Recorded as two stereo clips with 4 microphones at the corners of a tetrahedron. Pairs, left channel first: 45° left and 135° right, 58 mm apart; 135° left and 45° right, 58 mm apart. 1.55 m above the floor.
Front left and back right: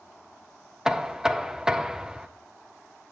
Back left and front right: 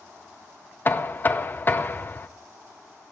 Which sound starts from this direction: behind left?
Knocking, at 0.8 s.